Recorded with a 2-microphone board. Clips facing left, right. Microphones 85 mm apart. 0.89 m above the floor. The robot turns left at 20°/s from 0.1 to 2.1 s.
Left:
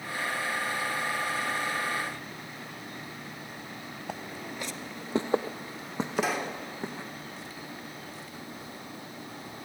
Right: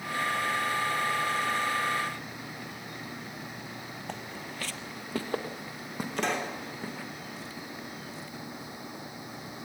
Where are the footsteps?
5° left (ahead or behind), 1.1 m; by 7.1 s 20° left (ahead or behind), 3 m.